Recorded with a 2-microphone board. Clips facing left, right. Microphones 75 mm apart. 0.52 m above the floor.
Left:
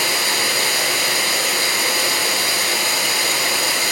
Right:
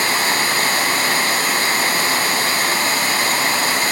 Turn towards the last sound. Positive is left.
turn(degrees=-45)  # may be behind; listen again after turning